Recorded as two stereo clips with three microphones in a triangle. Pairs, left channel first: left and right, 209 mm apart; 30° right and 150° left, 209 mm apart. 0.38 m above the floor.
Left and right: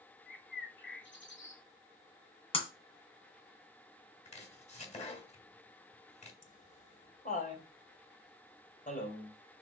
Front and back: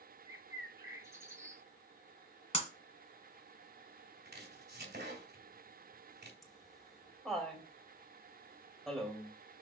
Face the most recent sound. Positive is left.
turn(degrees=60)